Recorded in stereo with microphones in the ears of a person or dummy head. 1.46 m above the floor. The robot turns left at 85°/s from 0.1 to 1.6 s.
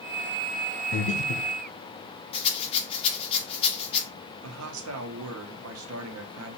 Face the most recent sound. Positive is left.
turn(degrees=-85)